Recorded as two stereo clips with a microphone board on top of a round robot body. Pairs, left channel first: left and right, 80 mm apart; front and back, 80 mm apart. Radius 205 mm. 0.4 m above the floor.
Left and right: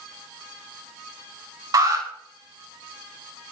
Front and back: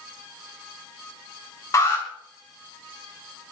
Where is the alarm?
55° right, 6 m.